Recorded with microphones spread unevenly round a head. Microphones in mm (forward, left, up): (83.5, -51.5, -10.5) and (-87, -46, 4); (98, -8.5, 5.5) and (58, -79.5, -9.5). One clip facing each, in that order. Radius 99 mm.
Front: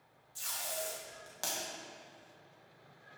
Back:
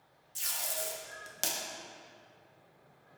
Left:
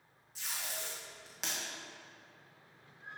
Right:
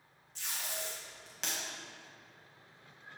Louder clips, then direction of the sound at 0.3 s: Even, right 1 dB; 130° left.